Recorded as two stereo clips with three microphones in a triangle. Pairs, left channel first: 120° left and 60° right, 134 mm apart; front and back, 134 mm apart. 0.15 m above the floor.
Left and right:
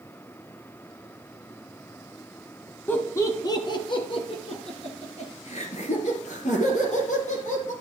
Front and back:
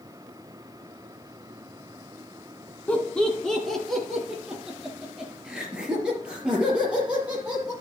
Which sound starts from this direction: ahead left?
Laughter, at 2.9 s.